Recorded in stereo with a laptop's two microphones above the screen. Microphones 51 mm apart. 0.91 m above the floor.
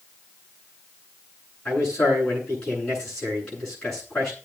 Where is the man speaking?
15° left (ahead or behind), 9 m.